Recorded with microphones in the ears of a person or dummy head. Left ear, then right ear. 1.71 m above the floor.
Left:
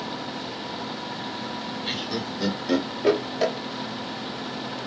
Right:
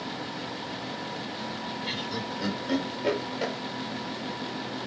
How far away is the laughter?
About 1.6 m.